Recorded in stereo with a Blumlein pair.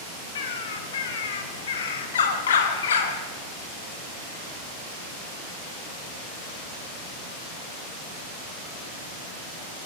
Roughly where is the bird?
Ahead left.